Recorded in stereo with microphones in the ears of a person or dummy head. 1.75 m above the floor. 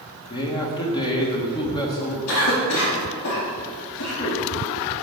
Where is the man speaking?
25° left (ahead or behind), 1.6 m.